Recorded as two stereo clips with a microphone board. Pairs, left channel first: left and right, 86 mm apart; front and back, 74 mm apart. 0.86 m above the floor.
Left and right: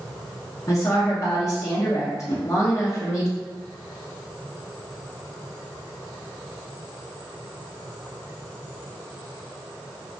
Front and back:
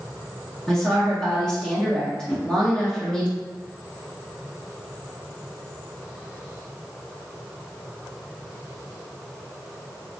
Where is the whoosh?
75° left, 0.7 m.